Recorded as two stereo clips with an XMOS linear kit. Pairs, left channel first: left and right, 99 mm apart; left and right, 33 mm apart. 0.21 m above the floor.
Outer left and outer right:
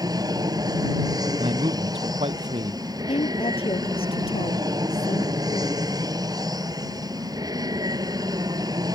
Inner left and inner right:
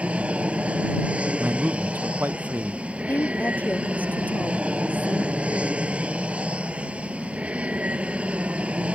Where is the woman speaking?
70° left (ahead or behind).